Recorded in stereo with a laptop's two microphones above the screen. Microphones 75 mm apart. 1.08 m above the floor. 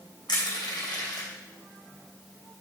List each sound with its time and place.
0.3 s crushing: 80° left, 3 m